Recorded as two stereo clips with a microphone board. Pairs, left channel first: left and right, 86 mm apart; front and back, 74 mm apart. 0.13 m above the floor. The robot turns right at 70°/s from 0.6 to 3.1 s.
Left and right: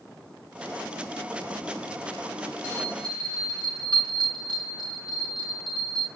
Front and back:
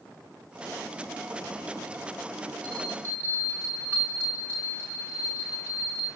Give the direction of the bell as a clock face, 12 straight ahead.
5 o'clock.